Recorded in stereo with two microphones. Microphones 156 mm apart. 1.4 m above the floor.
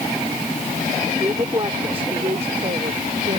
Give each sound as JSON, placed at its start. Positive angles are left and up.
{"t": 1.2, "sound": "a woman speaking", "side_deg": -30}